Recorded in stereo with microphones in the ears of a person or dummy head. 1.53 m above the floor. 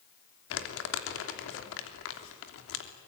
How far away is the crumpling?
About 3 m.